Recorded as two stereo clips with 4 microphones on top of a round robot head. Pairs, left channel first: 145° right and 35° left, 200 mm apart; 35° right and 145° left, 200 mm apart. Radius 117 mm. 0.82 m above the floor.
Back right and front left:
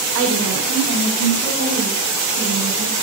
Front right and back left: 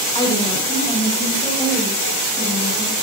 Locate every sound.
0.1 s a woman speaking: 35° left, 4 m; by 3.0 s 45° left, 7.5 m